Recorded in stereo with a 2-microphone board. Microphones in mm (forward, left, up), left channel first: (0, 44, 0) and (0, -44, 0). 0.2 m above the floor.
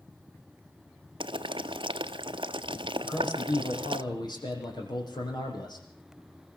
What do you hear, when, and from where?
1.2 s boiling: 70° right (ahead or behind), 0.8 m
3.0 s a man speaking: 55° left (ahead or behind), 7.5 m